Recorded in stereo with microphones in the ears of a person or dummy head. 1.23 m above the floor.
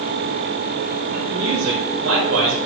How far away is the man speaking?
About 3.5 m.